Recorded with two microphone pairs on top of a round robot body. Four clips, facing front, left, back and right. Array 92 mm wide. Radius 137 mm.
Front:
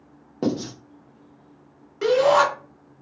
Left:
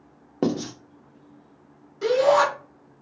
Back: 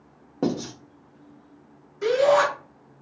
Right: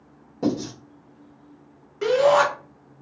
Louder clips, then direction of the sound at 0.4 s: Even, front 1 dB; 85° left.